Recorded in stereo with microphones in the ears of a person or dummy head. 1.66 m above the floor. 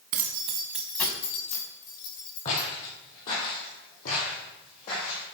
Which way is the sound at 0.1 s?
55° right (ahead or behind).